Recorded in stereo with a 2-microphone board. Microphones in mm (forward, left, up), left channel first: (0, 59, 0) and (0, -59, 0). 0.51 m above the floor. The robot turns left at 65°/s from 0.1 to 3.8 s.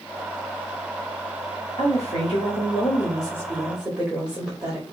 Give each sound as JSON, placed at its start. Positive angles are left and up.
{"t": 1.8, "sound": "a woman speaking", "azimuth_deg": 125, "distance_m": 1.6}